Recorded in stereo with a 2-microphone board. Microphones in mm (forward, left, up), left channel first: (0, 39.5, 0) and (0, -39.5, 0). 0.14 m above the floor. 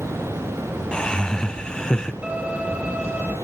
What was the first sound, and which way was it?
Laughter, 10° left (ahead or behind).